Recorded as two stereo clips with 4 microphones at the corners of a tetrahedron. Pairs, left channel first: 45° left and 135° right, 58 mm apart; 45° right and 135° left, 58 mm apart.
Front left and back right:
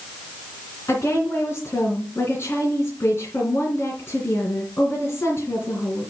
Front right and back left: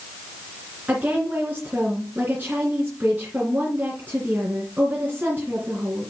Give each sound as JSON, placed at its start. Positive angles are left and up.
{"t": 0.9, "sound": "a woman speaking", "azimuth_deg": 70, "distance_m": 3.0}